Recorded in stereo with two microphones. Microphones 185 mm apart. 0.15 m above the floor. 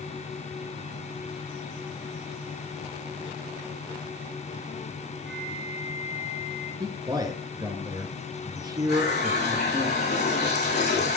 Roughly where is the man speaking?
Centre.